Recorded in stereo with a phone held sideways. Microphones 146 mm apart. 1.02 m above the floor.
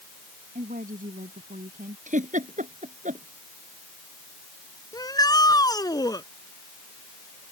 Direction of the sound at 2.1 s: 60° right (ahead or behind).